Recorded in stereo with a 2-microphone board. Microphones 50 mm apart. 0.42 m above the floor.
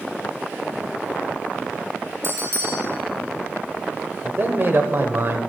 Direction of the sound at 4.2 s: 45° right (ahead or behind).